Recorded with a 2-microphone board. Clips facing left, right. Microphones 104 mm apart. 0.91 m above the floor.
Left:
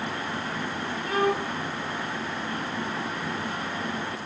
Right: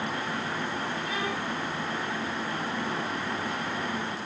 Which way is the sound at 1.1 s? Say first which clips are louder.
Left 6 dB; 50° left (ahead or behind).